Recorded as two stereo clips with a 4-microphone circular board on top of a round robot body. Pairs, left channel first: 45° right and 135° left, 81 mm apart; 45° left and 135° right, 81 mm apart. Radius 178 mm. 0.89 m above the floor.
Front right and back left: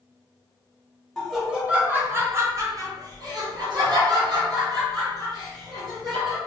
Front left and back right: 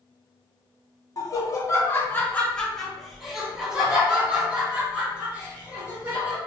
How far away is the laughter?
About 1.1 m.